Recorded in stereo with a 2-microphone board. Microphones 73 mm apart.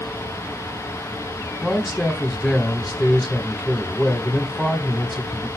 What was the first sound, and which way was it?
A man speaking, 10° left (ahead or behind).